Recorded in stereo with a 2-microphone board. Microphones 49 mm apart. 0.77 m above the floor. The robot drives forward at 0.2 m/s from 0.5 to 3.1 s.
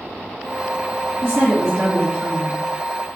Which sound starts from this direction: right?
A woman speaking, at 1.2 s.